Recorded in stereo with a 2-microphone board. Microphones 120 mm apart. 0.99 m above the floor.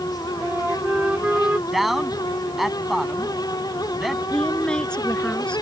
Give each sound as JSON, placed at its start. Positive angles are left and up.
{"t": 0.4, "sound": "a flute", "side_deg": -10}
{"t": 1.7, "sound": "a man speaking", "side_deg": 0}
{"t": 4.3, "sound": "a woman speaking", "side_deg": 10}